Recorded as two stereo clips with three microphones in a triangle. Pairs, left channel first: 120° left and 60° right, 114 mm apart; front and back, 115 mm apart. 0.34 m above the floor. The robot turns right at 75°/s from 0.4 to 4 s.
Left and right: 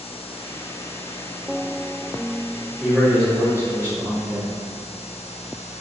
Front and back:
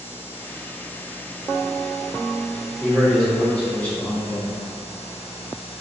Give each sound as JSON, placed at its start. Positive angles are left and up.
{"t": 2.8, "sound": "a man speaking", "azimuth_deg": -125, "distance_m": 0.8}